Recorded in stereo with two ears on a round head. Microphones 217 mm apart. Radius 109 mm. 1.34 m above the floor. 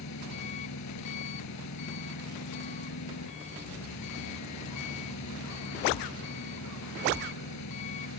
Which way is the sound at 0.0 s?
75° left (ahead or behind).